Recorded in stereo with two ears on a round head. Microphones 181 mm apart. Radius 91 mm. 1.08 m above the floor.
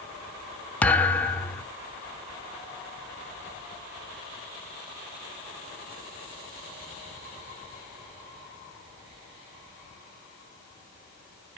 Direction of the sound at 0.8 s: 10° left (ahead or behind).